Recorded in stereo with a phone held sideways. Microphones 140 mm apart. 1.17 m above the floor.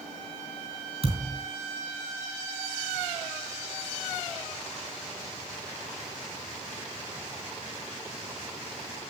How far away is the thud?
About 3 m.